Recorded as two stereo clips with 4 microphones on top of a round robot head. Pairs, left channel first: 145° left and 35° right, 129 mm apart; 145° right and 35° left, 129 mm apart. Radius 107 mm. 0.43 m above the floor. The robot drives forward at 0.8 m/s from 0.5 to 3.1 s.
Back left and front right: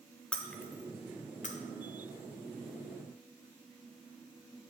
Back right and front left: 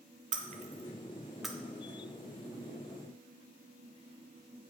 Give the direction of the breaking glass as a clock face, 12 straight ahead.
10 o'clock.